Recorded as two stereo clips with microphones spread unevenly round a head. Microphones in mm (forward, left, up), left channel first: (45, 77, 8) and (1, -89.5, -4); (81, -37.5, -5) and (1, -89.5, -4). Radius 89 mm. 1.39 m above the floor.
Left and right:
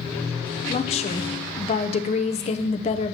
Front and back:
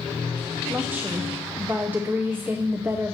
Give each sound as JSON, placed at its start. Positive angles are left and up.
{"t": 0.7, "sound": "a woman speaking", "azimuth_deg": 135, "distance_m": 0.7}